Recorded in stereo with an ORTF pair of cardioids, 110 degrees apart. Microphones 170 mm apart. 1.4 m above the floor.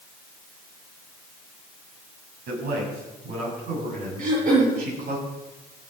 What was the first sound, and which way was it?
A man speaking, 65° right.